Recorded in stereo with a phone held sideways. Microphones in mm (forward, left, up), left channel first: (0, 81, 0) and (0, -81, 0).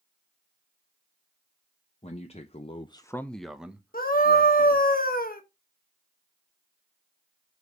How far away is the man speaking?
About 0.9 m.